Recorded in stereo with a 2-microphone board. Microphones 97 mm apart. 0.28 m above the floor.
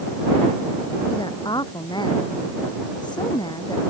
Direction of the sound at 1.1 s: 50° left (ahead or behind).